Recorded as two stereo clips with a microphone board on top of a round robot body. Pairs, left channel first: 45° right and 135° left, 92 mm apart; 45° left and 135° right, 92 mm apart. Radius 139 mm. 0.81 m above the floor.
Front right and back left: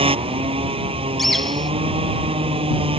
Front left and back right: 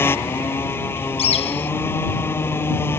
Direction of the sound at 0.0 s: 115° left.